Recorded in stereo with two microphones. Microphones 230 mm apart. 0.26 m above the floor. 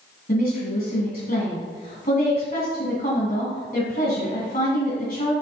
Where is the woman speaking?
45° left (ahead or behind), 1.9 m.